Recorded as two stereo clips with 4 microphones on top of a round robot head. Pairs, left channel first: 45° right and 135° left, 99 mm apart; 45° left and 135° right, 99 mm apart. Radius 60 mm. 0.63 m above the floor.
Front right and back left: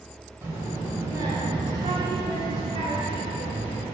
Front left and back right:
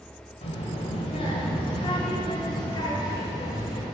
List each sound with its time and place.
0.4 s a child speaking: 70° left, 3 m; by 3.9 s 100° left, 3.5 m